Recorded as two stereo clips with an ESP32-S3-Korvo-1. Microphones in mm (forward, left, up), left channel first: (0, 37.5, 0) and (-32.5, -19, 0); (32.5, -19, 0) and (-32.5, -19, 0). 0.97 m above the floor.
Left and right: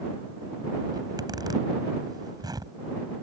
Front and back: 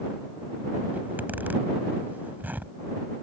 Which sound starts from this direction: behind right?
A zipper, at 0.9 s.